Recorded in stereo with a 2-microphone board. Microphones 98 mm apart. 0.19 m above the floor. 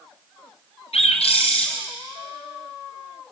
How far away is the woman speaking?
No woman speaking in this recording.